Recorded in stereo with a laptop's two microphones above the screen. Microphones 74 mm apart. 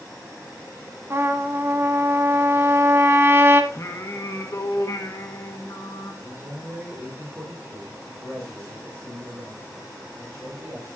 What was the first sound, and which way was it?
A trumpet, 35° right (ahead or behind).